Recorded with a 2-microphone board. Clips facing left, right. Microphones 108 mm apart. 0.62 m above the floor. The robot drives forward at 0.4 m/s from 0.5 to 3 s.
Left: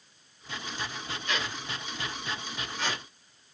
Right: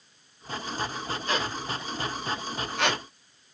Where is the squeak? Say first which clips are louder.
Right 4 dB; 35° right (ahead or behind), 0.7 m; by 3.0 s 65° right (ahead or behind), 0.5 m.